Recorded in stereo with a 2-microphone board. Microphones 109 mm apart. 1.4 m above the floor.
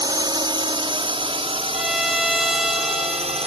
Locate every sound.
0.0 s a drone: 40° right (ahead or behind); by 3.5 s 70° right (ahead or behind)
1.7 s a violin: centre (ahead or behind)